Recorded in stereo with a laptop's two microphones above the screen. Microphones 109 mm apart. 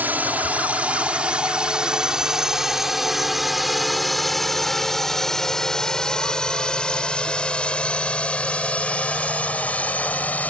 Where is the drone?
15° right (ahead or behind); by 10.5 s 15° left (ahead or behind).